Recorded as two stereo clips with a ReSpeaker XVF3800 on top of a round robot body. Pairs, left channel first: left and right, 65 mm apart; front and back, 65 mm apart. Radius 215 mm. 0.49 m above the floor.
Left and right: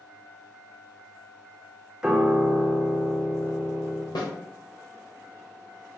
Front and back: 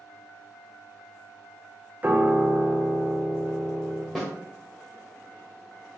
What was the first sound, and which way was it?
A piano, 160° right.